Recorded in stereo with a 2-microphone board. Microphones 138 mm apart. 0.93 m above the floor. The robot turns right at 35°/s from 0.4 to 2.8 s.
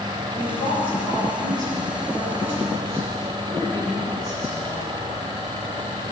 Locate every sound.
0.3 s a woman speaking: 70° left, 5.5 m; by 5.0 s 155° left, 5.5 m